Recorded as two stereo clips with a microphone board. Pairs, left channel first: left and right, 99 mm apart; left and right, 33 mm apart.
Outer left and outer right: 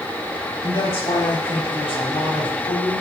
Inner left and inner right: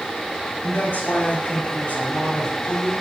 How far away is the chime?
No chime in this recording.